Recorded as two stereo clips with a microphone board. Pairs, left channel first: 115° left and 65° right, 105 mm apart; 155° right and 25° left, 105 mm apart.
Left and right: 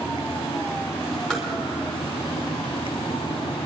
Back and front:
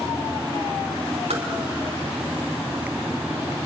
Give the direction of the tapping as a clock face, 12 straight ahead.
11 o'clock.